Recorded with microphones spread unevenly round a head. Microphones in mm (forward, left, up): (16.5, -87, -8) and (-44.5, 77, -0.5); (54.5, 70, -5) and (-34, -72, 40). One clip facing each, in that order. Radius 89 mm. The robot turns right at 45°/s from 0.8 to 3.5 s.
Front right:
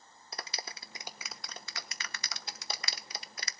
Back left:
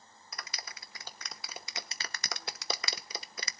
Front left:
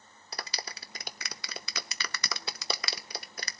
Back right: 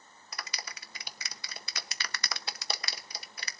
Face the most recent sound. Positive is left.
turn(degrees=115)